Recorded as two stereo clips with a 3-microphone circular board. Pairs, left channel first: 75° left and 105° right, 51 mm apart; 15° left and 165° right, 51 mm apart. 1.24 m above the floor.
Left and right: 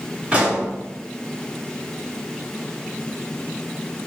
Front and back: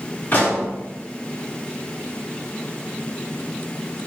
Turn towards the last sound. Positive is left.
turn(degrees=-40)